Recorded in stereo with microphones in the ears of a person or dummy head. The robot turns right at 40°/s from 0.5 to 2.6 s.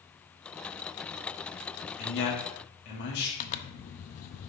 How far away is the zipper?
About 0.6 m.